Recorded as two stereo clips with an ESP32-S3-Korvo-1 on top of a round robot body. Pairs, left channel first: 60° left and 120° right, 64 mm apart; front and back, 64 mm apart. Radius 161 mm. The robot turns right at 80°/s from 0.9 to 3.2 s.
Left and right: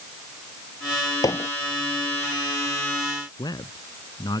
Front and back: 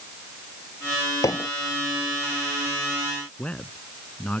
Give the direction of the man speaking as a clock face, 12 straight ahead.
10 o'clock.